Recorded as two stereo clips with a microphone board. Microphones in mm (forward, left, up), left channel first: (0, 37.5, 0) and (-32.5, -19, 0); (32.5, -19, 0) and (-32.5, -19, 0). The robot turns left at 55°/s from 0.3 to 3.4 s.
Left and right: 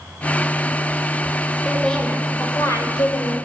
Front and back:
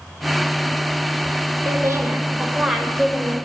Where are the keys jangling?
I don't hear keys jangling.